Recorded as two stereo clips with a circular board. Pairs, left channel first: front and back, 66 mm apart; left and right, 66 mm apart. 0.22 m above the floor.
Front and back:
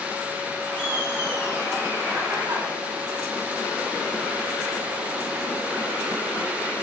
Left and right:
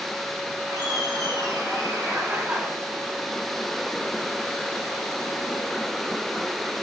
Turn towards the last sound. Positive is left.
turn(degrees=-160)